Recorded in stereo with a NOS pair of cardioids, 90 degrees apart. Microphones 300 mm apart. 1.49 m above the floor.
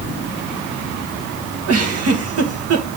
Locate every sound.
1.7 s a giggle: 50° right, 1.7 m